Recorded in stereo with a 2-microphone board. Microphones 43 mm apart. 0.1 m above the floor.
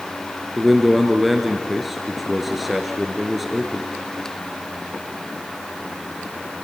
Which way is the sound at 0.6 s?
5° right (ahead or behind).